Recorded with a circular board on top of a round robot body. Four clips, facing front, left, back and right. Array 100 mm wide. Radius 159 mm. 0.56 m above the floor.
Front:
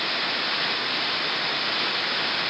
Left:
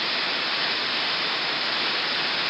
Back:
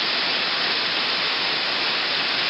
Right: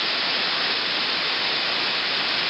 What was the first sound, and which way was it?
Only background noise.